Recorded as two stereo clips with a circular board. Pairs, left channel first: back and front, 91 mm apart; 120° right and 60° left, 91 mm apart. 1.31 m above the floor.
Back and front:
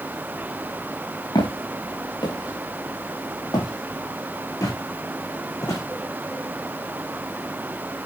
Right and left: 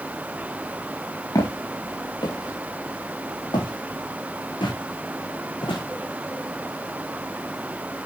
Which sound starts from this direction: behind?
Footsteps, at 1.4 s.